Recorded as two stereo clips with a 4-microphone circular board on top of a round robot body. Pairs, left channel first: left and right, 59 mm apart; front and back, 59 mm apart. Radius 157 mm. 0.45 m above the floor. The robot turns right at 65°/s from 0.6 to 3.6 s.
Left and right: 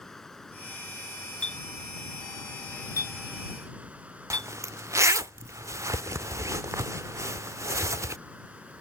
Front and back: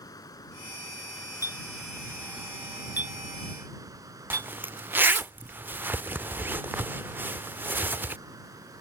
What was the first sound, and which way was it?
Running water, 5° left.